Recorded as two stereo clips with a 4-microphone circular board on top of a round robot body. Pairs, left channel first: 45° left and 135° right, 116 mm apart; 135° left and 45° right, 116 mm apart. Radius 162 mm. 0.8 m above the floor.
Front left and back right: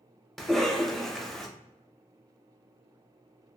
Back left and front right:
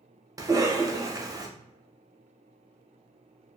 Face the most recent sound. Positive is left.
turn(degrees=-40)